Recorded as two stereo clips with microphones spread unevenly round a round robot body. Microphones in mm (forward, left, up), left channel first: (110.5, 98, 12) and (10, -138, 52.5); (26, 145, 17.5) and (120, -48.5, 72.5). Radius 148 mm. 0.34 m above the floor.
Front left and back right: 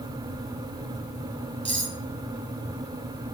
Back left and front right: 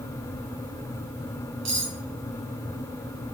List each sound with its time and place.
1.6 s cutlery clinking: 60° right, 3 m